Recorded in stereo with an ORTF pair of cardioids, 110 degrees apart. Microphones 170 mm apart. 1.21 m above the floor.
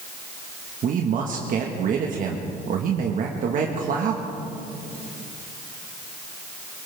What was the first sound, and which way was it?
A man speaking, 50° right.